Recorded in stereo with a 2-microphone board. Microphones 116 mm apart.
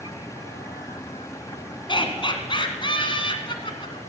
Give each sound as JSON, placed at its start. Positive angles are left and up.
{"t": 1.9, "sound": "laughter", "side_deg": 45, "distance_m": 2.5}